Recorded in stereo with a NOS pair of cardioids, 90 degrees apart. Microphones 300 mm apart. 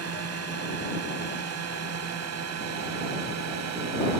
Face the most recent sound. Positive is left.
turn(degrees=-60)